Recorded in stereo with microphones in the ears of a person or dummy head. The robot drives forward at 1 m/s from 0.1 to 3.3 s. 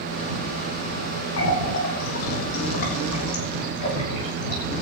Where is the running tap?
75° left (ahead or behind), 2 m; by 4.6 s 45° left (ahead or behind), 3 m.